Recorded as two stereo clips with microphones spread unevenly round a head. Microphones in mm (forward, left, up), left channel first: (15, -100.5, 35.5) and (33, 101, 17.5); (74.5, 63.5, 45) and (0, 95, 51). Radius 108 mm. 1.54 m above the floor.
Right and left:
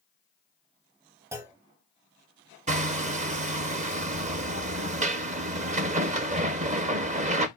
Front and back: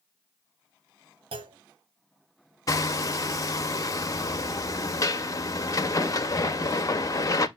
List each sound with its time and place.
1.3 s a clunk: 165° left, 0.6 m
2.7 s hammering: 25° left, 0.9 m